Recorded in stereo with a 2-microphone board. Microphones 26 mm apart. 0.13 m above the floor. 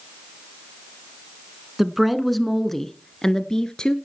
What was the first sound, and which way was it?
A woman speaking, 10° right (ahead or behind).